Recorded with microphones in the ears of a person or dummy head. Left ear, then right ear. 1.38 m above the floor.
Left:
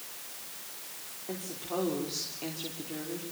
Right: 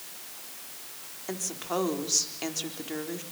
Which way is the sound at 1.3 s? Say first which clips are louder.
Right 5 dB; 50° right (ahead or behind).